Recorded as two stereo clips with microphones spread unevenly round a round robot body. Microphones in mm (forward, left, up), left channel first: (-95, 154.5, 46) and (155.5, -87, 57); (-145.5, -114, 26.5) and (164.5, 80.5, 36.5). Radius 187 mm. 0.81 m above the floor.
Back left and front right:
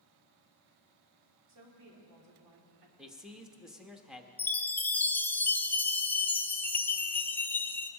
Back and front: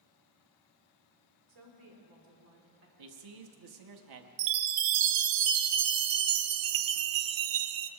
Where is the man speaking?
45° left, 1.3 m.